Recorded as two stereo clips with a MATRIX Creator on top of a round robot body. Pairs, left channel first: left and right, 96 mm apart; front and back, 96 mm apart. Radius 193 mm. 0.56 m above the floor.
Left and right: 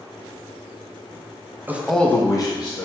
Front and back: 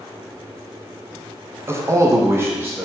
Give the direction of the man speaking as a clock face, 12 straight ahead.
5 o'clock.